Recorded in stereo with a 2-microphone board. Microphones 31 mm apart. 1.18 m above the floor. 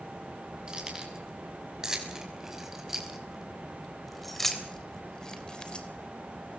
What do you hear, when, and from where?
0.7 s keys jangling: 25° right (ahead or behind), 6 m; by 5.9 s 35° left (ahead or behind), 3 m